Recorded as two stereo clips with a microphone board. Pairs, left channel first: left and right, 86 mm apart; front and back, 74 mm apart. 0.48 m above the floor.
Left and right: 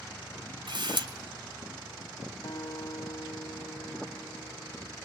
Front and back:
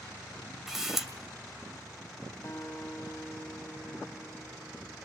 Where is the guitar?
55° left, 2.5 m.